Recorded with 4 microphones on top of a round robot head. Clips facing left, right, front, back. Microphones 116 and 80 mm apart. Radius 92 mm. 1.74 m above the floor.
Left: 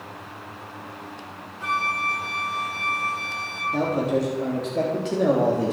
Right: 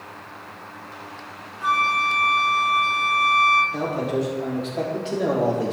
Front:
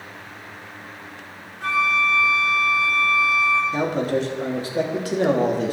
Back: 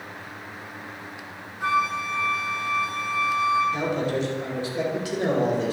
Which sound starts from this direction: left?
A flute, at 1.6 s.